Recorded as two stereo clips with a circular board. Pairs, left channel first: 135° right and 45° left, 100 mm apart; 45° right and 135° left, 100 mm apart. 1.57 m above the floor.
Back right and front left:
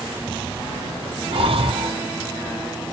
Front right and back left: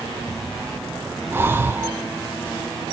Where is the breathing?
65° left, 0.7 m.